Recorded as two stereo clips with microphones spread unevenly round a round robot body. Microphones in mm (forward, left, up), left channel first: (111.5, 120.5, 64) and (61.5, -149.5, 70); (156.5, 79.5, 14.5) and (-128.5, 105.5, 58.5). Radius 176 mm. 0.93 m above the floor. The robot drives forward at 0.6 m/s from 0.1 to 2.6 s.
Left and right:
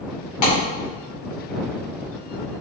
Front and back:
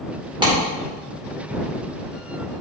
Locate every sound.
0.4 s a clap: 100° left, 2.5 m